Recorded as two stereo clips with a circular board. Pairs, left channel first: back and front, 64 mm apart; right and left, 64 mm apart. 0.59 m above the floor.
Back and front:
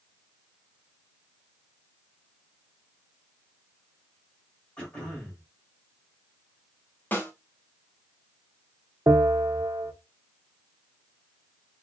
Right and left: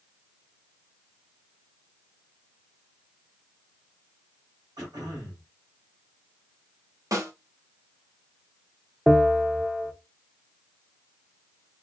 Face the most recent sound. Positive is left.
turn(degrees=10)